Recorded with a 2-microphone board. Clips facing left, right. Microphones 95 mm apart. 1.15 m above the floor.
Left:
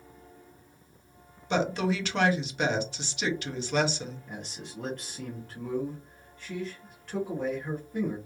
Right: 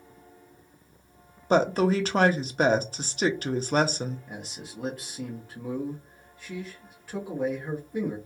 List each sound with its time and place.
1.5 s a woman speaking: 40° right (ahead or behind), 0.6 m
4.3 s a man speaking: 5° right (ahead or behind), 0.8 m